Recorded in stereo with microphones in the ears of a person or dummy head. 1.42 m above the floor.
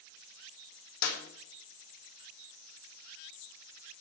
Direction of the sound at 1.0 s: 90° left.